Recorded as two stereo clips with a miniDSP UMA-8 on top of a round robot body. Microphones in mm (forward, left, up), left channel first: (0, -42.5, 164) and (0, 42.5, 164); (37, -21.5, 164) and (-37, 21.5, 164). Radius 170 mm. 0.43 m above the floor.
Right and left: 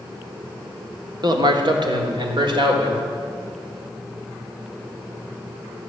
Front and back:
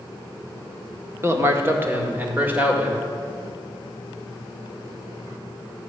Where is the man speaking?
100° left, 1.6 m; by 3.0 s 80° left, 2.5 m.